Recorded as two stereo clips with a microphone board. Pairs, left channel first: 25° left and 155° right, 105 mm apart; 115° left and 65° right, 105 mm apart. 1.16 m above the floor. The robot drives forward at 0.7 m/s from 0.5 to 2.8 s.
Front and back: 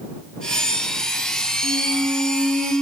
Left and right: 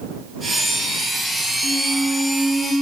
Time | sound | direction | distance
1.6 | a squeak | 160° left | 1.9 m